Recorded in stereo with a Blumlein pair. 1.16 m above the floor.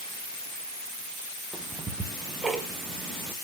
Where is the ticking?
10° right, 1.3 m.